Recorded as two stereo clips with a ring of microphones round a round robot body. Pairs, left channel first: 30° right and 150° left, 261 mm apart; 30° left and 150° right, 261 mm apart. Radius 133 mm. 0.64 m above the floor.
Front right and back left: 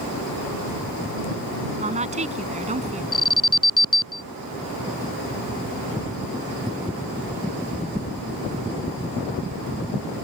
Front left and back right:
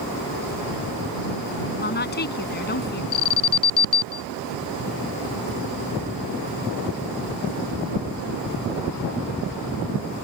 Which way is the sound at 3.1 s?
45° left.